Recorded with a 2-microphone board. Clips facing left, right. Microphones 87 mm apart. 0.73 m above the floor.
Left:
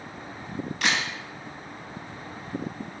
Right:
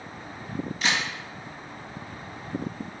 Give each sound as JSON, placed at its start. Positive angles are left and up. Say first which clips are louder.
{"t": 0.8, "sound": "a camera shutter", "louder": "left 1 dB", "side_deg": 65, "distance_m": 2.0}